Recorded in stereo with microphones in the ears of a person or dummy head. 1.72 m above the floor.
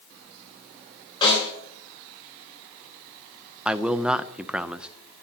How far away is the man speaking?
About 0.6 m.